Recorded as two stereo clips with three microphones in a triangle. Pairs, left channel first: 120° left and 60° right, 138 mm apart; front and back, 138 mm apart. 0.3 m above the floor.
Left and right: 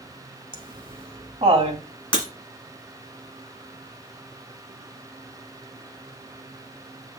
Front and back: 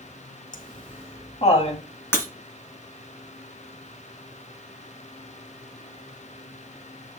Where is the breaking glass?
70° left, 1.7 m.